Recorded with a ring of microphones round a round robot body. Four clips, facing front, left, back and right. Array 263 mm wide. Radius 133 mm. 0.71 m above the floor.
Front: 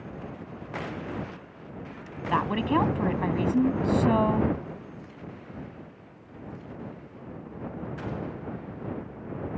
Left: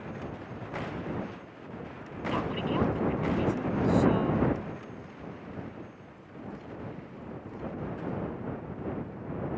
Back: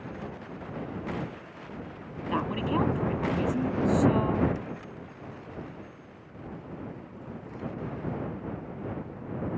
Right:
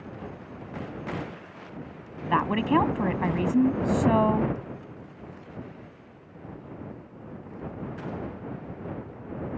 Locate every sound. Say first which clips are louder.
2.3 s a woman speaking: right 7 dB, front 4 dB; 65° right